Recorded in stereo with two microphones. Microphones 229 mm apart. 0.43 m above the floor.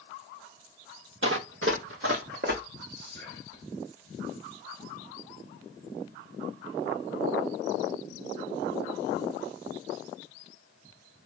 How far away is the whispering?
About 1.9 m.